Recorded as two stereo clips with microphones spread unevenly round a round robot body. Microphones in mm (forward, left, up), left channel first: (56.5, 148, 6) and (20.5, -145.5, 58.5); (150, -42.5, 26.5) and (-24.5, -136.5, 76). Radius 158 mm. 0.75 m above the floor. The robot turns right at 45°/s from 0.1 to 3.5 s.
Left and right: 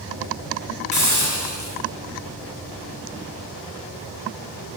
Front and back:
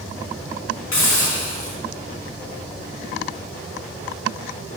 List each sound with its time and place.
0.9 s a hiss: 50° left, 5 m; by 1.8 s 90° left, 5 m